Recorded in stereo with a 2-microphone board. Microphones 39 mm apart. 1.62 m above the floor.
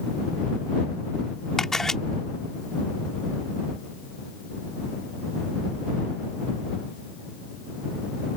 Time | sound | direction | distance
1.6 | a camera shutter | 10° left (ahead or behind) | ?